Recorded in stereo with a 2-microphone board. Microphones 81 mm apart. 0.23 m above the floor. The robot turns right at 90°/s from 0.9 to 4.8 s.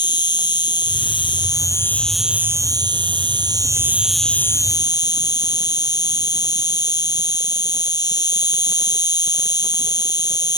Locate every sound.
0.0 s an insect: 65° left; by 10.6 s 55° left